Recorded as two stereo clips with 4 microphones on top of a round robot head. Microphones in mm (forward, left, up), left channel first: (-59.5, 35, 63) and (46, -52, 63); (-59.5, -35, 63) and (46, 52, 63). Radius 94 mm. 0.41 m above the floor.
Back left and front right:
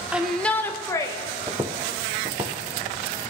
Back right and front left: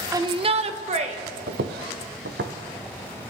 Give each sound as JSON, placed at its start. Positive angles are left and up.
{"t": 0.1, "sound": "a shout", "azimuth_deg": 25, "distance_m": 0.7}
{"t": 1.5, "sound": "footsteps", "azimuth_deg": 30, "distance_m": 0.7}